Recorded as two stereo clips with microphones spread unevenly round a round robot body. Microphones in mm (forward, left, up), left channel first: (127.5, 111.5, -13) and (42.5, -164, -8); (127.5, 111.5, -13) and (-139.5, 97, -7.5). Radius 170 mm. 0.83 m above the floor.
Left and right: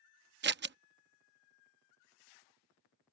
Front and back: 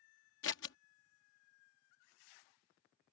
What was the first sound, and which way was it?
Scissors, 55° right.